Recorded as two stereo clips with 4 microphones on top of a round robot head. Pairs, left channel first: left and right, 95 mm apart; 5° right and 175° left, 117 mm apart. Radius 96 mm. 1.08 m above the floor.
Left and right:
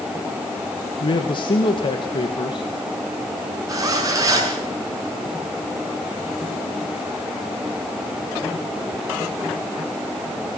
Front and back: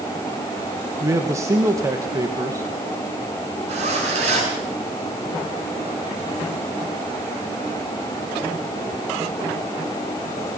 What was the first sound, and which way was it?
A man speaking, 115° left.